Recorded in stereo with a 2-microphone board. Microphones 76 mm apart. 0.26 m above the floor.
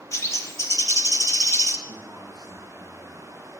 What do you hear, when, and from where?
0.1 s a bird: 40° left (ahead or behind), 0.7 m
1.9 s a man speaking: 70° left (ahead or behind), 5 m